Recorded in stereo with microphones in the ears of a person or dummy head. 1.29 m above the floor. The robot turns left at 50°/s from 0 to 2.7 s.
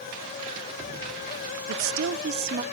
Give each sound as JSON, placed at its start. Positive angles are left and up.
{"t": 1.7, "sound": "a woman speaking", "azimuth_deg": -100, "distance_m": 0.8}